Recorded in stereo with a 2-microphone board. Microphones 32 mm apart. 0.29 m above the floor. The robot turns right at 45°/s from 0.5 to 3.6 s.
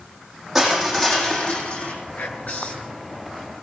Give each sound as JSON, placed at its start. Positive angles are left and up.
{"t": 0.6, "sound": "crushing", "azimuth_deg": -5, "distance_m": 6.0}
{"t": 2.2, "sound": "whispering", "azimuth_deg": 115, "distance_m": 4.5}